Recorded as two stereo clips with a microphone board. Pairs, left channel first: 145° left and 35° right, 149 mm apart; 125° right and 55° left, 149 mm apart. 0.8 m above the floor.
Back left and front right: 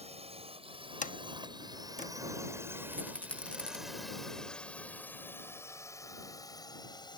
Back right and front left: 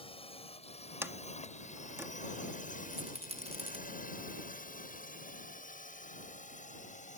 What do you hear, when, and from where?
0.0 s a drone: 75° right; by 7.2 s 155° right
1.0 s a sliding door: 130° left
2.9 s a rattle: 70° left